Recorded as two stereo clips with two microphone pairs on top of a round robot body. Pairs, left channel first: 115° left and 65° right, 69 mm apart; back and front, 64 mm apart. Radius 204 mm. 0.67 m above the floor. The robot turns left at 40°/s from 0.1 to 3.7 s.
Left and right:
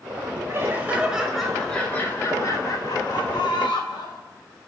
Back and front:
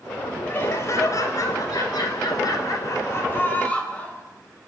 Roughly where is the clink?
I don't hear a clink.